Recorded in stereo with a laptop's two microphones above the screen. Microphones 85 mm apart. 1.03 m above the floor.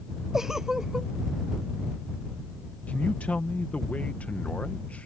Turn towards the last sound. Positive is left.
turn(degrees=15)  # may be behind; listen again after turning